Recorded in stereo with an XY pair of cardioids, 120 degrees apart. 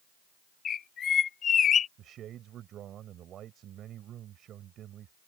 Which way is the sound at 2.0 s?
60° right.